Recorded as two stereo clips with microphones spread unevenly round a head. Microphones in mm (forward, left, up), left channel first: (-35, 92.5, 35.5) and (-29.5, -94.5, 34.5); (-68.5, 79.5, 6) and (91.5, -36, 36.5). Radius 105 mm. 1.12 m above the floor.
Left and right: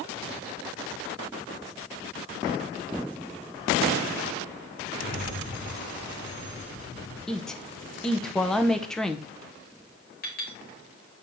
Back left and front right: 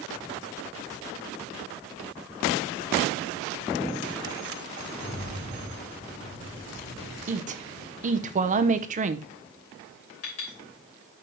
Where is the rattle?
135° left, 3 m.